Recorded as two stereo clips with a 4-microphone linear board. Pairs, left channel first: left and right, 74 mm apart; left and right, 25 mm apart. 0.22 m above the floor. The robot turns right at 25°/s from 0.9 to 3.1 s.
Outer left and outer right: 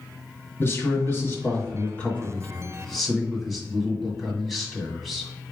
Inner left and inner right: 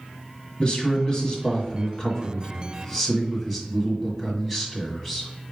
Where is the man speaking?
120° left, 1.7 m; by 5.3 s 175° left, 1.7 m.